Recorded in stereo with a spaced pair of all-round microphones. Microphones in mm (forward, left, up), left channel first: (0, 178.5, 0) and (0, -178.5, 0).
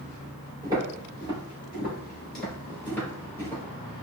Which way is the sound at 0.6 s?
10° right (ahead or behind).